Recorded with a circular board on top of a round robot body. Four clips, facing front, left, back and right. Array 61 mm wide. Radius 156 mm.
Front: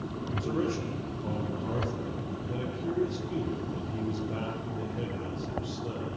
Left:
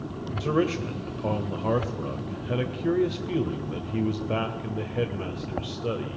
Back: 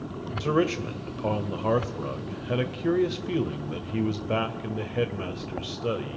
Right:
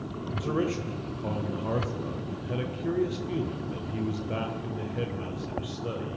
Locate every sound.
0.4 s a man speaking: 160° left, 2 m